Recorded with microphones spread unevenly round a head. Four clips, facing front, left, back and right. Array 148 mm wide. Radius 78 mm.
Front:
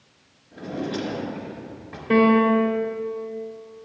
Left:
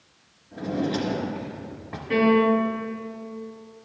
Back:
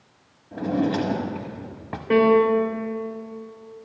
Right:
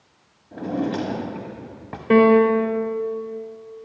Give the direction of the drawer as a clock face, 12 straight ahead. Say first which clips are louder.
Right 2 dB, back 6 dB; 5 o'clock.